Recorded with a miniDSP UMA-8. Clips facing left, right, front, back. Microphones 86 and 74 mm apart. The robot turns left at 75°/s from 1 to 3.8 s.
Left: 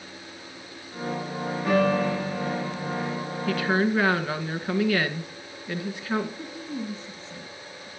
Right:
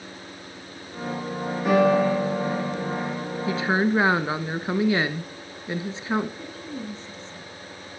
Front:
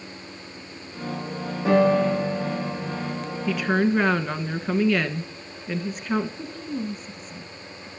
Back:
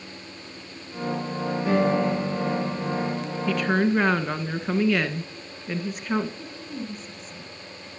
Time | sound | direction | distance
1.6 | a piano | 10° right | 8 m
3.5 | a woman speaking | 70° right | 1.1 m
6.4 | a woman speaking | 5° left | 2 m